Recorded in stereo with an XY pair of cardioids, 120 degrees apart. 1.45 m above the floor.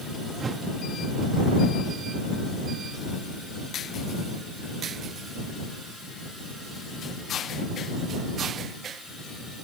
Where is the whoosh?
30° right.